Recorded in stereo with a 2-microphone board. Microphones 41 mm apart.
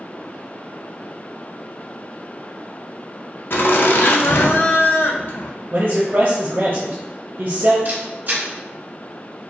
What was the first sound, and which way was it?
Laughter, 60° left (ahead or behind).